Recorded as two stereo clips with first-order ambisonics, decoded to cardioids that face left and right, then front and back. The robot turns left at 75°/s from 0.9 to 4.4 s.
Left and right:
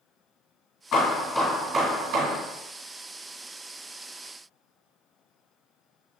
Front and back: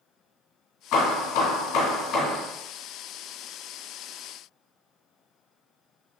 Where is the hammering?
45° left, 2.5 m; by 2.4 s 65° right, 2.5 m.